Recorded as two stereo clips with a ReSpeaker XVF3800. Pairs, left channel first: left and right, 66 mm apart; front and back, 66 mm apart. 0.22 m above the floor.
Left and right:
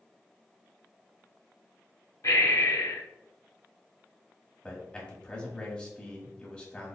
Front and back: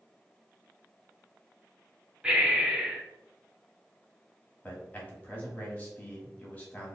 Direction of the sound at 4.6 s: 30° left.